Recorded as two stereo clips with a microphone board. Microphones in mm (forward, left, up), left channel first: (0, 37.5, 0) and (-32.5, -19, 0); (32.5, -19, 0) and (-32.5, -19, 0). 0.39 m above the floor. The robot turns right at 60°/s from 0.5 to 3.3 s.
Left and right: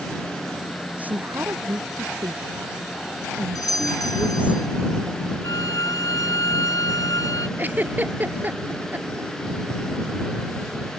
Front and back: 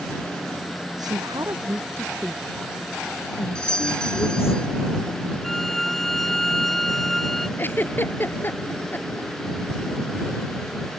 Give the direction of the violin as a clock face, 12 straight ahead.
9 o'clock.